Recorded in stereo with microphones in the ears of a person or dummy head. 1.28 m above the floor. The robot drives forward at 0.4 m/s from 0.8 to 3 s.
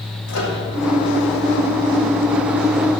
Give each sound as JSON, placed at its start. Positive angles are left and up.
{"t": 0.3, "sound": "a microwave", "side_deg": 85, "distance_m": 2.5}